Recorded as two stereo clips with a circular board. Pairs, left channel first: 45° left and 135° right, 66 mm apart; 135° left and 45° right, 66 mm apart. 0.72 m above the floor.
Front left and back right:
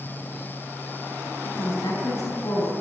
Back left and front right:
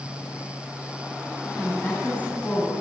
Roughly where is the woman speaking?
Left.